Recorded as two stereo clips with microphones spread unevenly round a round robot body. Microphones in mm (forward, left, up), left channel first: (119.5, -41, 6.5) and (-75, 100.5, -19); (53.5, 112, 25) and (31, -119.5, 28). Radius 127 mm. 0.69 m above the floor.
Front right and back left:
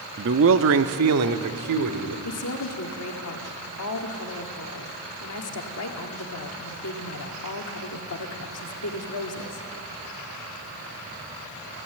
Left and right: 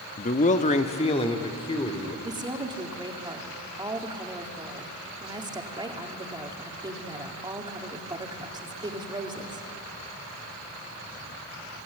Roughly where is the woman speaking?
Ahead right.